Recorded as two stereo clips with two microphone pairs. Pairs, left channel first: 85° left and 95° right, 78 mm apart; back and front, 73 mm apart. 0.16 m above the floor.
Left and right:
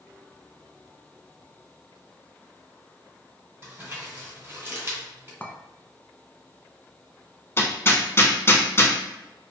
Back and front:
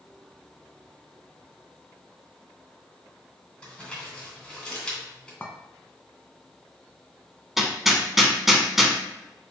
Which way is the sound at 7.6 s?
85° left.